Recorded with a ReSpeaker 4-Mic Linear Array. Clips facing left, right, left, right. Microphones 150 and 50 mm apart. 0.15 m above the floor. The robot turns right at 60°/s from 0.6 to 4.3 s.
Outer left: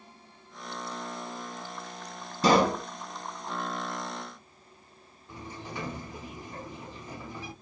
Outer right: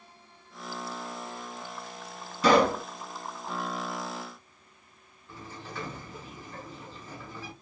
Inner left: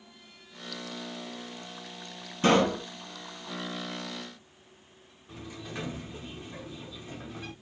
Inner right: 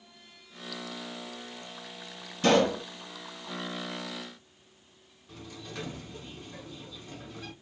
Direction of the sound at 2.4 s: 35° left (ahead or behind).